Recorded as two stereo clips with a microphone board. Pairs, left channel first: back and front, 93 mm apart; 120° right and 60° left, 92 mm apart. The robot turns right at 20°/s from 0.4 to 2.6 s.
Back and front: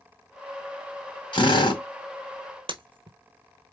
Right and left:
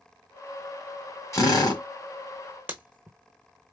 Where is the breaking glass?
10° right, 0.9 m.